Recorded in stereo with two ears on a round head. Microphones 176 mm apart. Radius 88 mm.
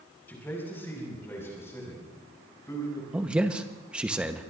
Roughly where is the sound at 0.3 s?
Centre.